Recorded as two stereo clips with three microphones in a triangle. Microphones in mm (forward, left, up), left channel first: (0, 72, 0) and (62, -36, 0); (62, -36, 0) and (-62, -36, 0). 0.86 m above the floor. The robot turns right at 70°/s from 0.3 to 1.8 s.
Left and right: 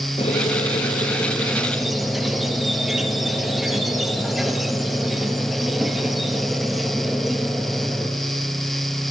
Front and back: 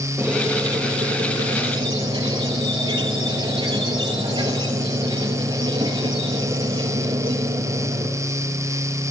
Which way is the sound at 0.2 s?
110° left.